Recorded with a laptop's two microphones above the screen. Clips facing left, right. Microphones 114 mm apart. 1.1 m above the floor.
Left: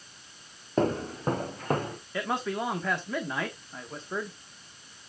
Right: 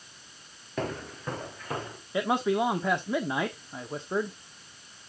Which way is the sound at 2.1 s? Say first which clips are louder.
Right 5 dB; 15° right (ahead or behind).